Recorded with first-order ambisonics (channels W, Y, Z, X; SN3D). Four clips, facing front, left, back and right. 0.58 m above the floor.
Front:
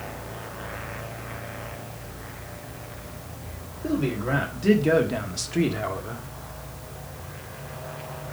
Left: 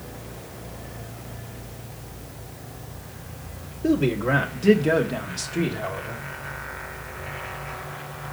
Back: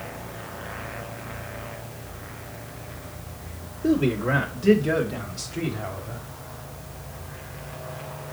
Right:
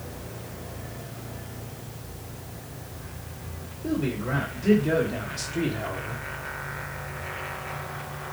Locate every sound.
3.8 s a man speaking: 115° left, 1.4 m; by 6.2 s 5° right, 1.7 m